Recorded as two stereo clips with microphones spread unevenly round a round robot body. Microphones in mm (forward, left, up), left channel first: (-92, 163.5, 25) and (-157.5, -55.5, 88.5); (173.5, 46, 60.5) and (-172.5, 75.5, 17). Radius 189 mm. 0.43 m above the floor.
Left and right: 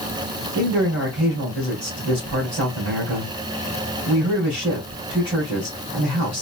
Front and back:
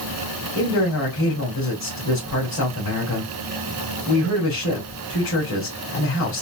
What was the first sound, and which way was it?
A man speaking, 55° right.